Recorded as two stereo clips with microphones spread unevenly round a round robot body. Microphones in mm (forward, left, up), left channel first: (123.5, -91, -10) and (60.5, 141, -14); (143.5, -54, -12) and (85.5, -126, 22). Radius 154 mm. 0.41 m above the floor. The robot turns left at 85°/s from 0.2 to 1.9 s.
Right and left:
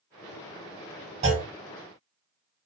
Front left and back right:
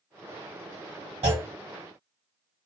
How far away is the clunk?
About 1.0 m.